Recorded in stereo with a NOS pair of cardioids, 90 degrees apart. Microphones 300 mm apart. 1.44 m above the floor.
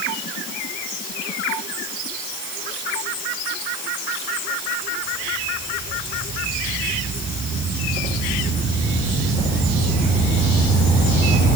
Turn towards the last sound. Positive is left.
No sound to turn to.